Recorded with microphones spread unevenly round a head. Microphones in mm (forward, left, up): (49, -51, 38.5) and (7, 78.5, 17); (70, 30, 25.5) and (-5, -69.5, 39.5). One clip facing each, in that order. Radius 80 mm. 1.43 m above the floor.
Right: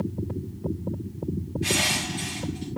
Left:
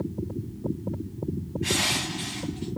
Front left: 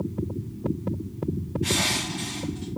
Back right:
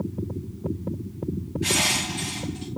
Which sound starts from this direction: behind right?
Crushing, at 1.6 s.